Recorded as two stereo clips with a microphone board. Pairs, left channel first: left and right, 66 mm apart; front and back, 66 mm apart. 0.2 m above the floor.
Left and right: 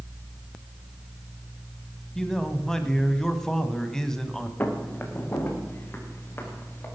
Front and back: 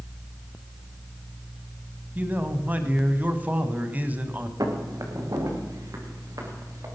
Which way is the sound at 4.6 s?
155° left.